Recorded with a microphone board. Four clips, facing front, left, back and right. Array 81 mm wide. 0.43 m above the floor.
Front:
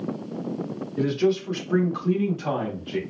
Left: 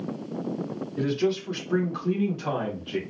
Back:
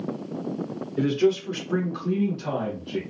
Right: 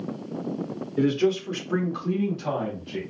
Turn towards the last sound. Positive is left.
turn(degrees=40)